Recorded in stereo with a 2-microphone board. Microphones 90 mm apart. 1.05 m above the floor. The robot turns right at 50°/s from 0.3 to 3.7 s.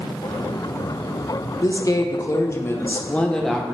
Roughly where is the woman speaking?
Left.